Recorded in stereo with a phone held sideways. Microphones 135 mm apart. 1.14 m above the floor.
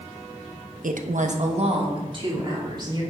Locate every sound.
0.8 s a woman speaking: 75° right (ahead or behind), 0.8 m; by 3.0 s 30° right (ahead or behind), 3 m